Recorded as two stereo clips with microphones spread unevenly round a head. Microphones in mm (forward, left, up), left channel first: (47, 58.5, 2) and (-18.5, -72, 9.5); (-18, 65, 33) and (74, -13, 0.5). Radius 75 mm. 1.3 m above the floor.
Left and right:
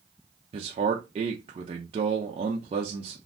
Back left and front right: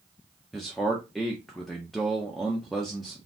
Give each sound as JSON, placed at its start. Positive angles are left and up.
{"t": 0.5, "sound": "a man speaking", "azimuth_deg": -105, "distance_m": 0.5}